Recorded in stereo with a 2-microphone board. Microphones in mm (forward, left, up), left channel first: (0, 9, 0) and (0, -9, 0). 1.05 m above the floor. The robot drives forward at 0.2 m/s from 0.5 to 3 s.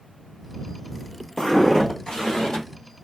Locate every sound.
1.4 s footsteps: 30° left (ahead or behind), 1.4 m; by 2.6 s 55° left (ahead or behind), 2 m